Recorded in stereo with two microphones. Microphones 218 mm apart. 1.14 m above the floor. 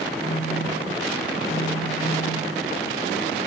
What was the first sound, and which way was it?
A phone buzzing, 40° left (ahead or behind).